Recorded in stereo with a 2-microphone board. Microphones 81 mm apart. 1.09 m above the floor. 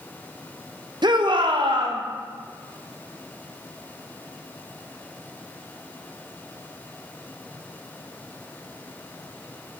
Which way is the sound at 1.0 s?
60° right (ahead or behind).